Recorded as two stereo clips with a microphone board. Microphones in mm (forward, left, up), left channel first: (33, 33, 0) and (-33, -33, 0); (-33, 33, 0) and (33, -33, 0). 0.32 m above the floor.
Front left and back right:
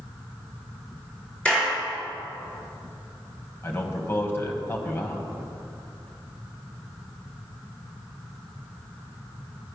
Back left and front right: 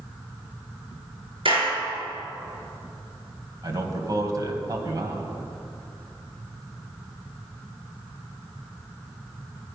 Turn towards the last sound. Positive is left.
turn(degrees=-10)